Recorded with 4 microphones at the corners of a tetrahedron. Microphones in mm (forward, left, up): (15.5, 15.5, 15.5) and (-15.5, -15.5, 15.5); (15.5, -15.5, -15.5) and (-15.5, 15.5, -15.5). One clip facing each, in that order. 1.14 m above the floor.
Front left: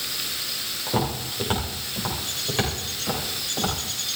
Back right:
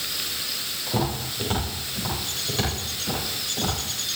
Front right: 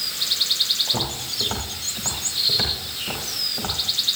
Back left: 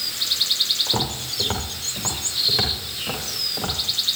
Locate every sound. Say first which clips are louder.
0.9 s footsteps: front left 1 dB, back left 1 dB; 110° left, 7.5 m; by 4.2 s 100° left, 10.5 m